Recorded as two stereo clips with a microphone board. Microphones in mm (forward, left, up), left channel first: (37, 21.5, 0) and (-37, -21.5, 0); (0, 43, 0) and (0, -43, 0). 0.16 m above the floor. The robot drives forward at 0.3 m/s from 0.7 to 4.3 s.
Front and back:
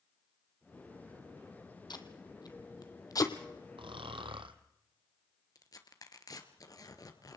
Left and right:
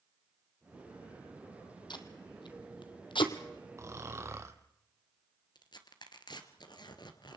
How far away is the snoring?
About 1.7 m.